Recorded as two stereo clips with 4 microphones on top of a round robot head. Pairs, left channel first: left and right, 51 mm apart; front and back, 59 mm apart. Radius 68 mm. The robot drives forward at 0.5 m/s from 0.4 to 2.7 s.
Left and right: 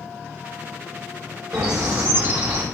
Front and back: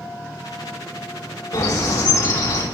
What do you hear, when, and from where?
1.5 s a bird: 40° right, 3.5 m; by 2.6 s 50° right, 3 m